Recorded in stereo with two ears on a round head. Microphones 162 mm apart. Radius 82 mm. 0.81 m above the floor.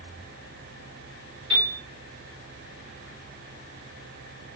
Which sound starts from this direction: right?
A piano, at 1.5 s.